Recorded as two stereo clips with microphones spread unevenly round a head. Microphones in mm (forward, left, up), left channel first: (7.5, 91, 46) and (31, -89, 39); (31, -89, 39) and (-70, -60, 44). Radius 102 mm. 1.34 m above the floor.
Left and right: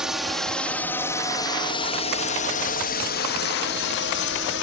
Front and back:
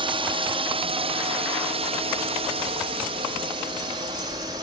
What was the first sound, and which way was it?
A drone, 170° right.